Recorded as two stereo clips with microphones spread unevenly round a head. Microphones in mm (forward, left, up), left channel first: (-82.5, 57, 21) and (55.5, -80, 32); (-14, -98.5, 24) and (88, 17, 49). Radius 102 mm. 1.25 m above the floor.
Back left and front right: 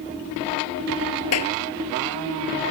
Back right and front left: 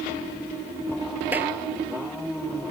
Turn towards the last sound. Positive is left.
turn(degrees=130)